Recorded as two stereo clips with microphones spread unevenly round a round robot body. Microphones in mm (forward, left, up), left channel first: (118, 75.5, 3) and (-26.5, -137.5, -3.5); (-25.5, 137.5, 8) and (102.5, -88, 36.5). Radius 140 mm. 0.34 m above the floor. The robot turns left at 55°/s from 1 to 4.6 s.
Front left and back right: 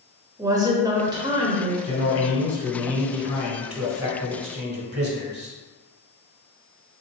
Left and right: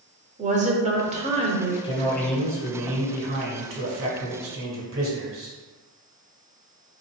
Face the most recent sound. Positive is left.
turn(degrees=-90)